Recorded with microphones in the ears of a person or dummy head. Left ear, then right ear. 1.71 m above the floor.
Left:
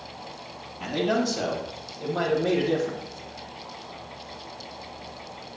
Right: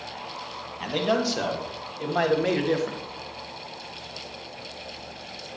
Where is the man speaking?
60° right (ahead or behind), 1.9 m; by 3.0 s 55° right (ahead or behind), 1.5 m.